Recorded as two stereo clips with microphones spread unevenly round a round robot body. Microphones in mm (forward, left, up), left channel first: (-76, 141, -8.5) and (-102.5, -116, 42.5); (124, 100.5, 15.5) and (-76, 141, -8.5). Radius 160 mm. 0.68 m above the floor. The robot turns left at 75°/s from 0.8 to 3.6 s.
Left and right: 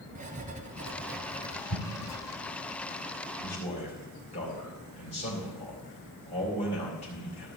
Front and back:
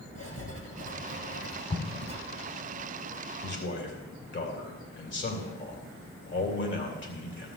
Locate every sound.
0.1 s writing: 155° right, 2.5 m; by 2.2 s 105° left, 2.5 m
1.7 s an explosion: 40° left, 1.6 m; by 2.1 s 10° left, 1.6 m
3.4 s a man speaking: 30° left, 3 m; by 7.5 s 20° left, 3 m